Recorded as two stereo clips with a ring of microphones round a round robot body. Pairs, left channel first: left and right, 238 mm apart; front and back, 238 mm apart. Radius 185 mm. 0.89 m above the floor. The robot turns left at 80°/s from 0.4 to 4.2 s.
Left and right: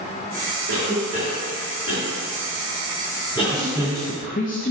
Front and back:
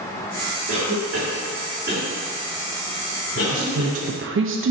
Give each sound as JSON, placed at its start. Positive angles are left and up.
{"t": 0.7, "sound": "a cough", "azimuth_deg": -130, "distance_m": 3.0}
{"t": 3.4, "sound": "a woman speaking", "azimuth_deg": -145, "distance_m": 0.8}